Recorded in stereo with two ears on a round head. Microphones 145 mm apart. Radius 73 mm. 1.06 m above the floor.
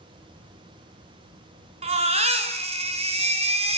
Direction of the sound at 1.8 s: 45° right (ahead or behind).